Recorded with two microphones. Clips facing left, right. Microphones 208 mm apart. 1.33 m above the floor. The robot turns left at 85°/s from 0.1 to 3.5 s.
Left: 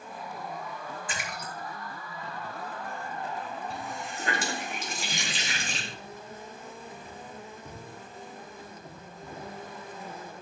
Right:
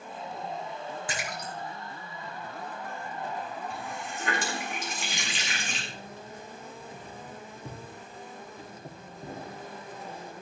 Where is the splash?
75° right (ahead or behind), 3 m; by 1.5 s 60° right (ahead or behind), 3 m.